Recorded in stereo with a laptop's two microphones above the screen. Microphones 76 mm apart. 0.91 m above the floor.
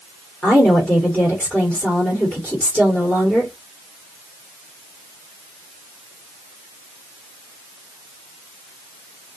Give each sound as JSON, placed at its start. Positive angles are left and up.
{"t": 0.4, "sound": "a woman speaking", "side_deg": 20, "distance_m": 1.8}